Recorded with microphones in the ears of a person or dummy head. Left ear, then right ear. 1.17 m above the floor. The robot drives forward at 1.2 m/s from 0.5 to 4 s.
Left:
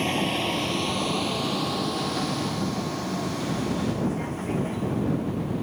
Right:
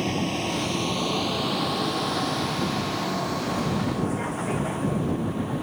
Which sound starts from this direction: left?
A vehicle, at 0.0 s.